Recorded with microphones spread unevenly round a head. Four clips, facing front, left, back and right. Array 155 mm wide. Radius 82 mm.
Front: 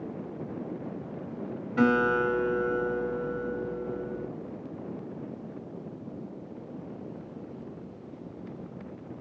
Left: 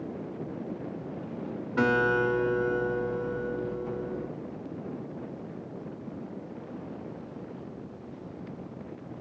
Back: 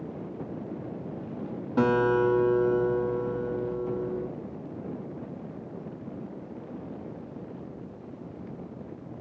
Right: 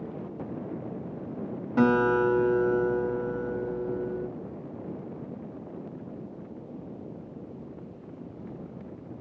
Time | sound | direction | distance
1.8 | a guitar | 140° right | 2 m